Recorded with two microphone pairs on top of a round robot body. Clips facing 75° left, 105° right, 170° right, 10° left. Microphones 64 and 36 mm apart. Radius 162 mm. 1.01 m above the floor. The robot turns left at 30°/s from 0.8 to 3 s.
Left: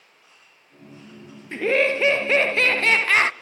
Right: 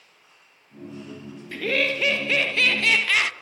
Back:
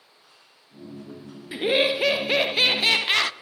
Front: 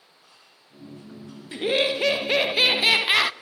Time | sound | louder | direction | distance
1.5 | laughter | left 4 dB, back 1 dB | 120° left | 0.5 m